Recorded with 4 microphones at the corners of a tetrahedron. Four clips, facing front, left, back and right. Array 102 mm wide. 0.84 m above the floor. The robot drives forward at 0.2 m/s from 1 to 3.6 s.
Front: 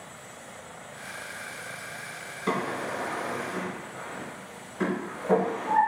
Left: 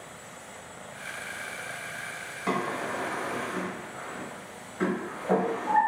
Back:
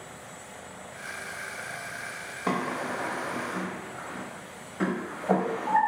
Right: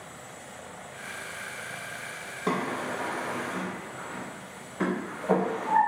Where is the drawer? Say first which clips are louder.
Even, even; 155° right, 1.2 m.